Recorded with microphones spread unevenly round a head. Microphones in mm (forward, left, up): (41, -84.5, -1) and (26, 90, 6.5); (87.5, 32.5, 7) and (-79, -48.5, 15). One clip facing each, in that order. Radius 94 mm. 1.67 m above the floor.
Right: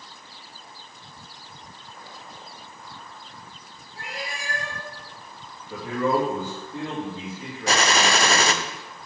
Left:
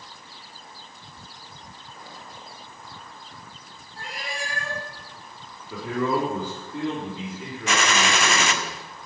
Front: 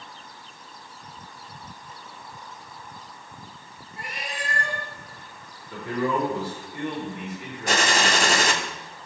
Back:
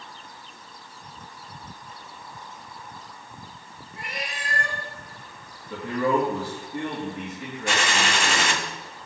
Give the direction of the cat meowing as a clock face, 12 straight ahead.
6 o'clock.